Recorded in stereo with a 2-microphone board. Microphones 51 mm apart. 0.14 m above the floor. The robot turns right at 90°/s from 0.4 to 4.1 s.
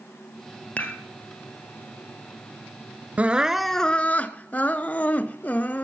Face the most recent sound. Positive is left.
turn(degrees=45)